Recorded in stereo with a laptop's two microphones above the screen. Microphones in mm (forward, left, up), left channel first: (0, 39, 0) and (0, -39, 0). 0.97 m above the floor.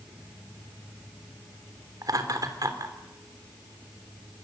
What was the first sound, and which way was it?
Laughter, 55° right (ahead or behind).